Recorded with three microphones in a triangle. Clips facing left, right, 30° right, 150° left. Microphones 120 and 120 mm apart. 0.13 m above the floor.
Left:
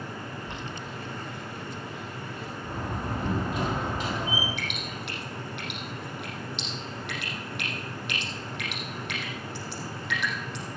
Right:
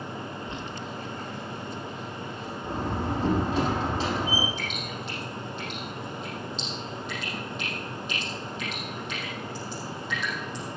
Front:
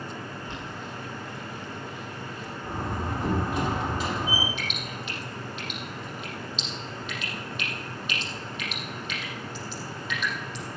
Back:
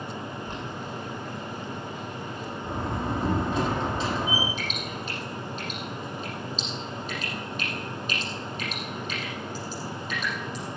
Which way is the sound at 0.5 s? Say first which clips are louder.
Right 2 dB, back 2 dB; 105° left.